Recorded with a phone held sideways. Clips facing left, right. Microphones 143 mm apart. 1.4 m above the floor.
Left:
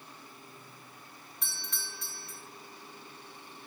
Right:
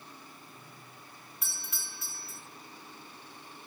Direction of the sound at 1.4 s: 5° right (ahead or behind).